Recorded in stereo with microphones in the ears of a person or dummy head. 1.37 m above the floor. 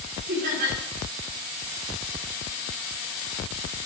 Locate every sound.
0.3 s laughter: 50° right (ahead or behind), 4.5 m